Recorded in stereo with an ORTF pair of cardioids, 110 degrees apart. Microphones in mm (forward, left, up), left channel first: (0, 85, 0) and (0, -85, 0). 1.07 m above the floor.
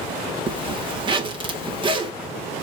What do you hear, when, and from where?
0.5 s a zipper: 30° right, 1.7 m